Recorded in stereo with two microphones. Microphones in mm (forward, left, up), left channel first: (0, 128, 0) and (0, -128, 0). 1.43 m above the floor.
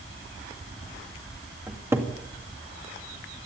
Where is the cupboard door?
10° right (ahead or behind), 2 m.